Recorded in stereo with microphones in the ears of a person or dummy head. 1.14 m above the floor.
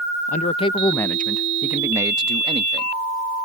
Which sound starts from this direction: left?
A man speaking, at 0.3 s.